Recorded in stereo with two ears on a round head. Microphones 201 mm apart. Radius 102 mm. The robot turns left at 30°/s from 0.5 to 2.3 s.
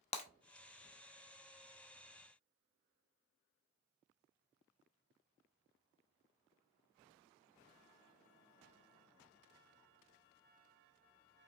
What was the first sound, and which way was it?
Breaking glass, 30° left (ahead or behind).